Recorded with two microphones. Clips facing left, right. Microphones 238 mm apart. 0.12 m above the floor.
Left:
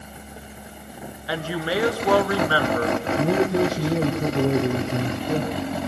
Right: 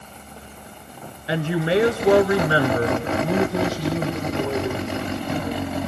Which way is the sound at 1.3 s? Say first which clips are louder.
Right 5 dB; 25° right (ahead or behind).